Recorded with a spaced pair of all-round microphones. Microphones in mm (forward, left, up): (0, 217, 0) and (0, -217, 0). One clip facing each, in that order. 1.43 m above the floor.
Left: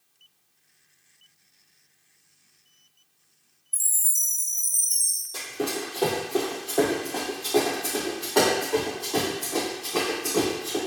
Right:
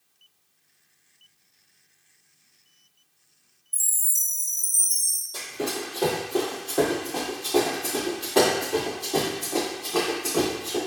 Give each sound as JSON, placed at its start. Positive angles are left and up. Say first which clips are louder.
{"t": 3.7, "sound": "a chime", "louder": "even", "side_deg": -25, "distance_m": 0.6}
{"t": 5.3, "sound": "running footsteps", "louder": "left 1 dB", "side_deg": 0, "distance_m": 1.7}